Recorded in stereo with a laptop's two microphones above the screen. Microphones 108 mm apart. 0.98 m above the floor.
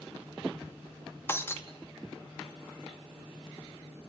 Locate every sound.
1.3 s breaking glass: 20° left (ahead or behind), 0.9 m